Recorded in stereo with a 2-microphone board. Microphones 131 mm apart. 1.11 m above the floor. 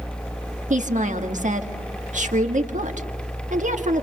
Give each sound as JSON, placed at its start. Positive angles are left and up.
{"t": 0.7, "sound": "a woman speaking", "side_deg": -70, "distance_m": 1.6}